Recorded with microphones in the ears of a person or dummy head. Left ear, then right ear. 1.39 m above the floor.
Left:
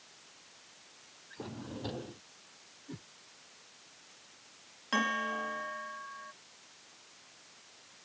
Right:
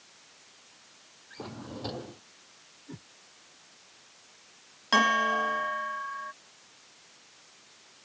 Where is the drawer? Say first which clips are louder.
Right 3 dB; 15° right (ahead or behind).